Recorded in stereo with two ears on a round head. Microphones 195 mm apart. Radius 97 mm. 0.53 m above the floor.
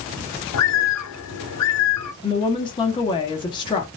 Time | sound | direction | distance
0.5 | a bird | 80° left | 0.9 m
2.2 | a woman speaking | 20° left (ahead or behind) | 0.8 m